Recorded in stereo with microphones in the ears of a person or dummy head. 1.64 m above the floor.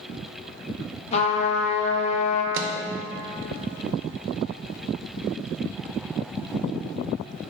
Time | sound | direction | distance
1.1 | a trumpet | 35° left (ahead or behind) | 0.7 m
2.5 | a microwave | 65° right (ahead or behind) | 0.5 m